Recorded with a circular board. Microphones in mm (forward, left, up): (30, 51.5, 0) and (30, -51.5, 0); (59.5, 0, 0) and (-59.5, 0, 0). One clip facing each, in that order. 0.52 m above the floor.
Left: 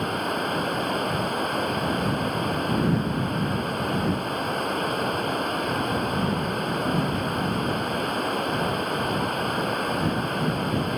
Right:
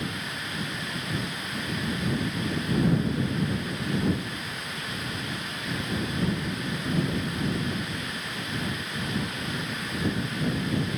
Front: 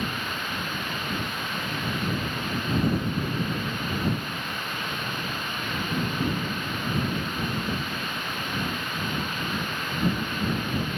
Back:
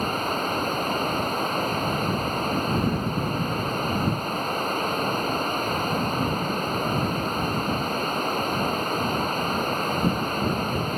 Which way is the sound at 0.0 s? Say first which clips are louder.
Left 9 dB, back 6 dB; 130° left.